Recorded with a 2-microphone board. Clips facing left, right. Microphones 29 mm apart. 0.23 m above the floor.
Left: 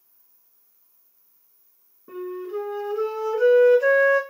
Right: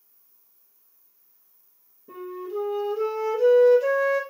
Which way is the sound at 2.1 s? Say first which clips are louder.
Left 2 dB; 70° left (ahead or behind).